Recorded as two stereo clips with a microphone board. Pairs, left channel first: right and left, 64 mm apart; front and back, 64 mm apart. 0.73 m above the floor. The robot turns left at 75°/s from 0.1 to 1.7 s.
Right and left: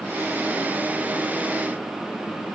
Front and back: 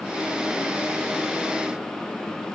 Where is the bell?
No bell in this recording.